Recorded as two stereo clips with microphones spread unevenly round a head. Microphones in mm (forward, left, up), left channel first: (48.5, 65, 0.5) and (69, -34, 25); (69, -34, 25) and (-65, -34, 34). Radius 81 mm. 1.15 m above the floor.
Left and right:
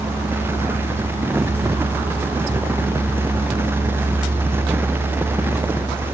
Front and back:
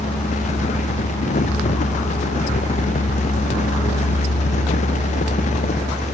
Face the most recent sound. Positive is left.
No sound to turn to.